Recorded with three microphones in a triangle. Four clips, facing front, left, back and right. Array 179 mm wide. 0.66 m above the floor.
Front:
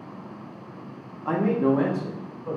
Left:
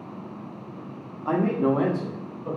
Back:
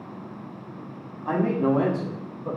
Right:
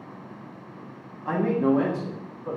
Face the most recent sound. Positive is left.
turn(degrees=160)